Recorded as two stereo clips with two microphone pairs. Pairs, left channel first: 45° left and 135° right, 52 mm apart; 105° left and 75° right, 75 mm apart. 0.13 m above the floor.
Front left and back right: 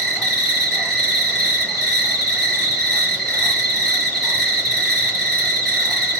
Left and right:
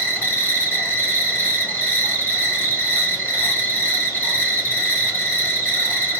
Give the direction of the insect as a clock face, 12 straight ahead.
8 o'clock.